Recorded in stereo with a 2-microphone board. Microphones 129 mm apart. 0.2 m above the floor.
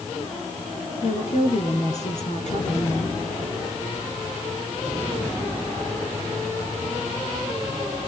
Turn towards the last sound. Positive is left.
turn(degrees=65)  # may be behind; listen again after turning